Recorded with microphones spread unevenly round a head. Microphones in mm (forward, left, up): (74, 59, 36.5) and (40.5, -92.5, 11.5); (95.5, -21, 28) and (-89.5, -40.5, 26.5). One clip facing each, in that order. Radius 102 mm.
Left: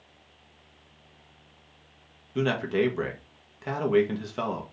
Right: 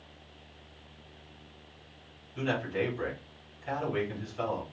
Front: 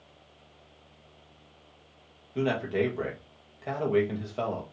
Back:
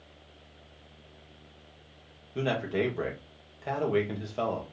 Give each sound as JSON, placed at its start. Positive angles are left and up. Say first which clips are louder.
{"t": 2.4, "sound": "a man speaking", "louder": "left 6 dB, front 2 dB", "azimuth_deg": 100, "distance_m": 1.4}